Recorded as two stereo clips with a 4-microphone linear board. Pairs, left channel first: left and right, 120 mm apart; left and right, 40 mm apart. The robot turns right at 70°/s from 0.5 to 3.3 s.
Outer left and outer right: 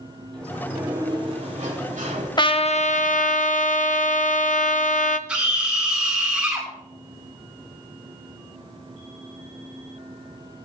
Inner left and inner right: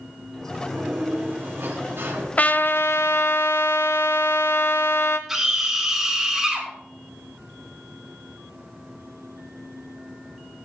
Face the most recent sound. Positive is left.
turn(degrees=-10)  # may be behind; listen again after turning